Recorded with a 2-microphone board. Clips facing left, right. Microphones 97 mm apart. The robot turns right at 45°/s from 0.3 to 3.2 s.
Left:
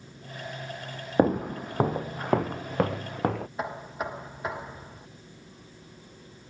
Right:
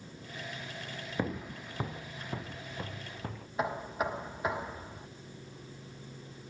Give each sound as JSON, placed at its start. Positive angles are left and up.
{"t": 1.2, "sound": "footsteps", "side_deg": 55}
{"t": 3.6, "sound": "knocking", "side_deg": 0}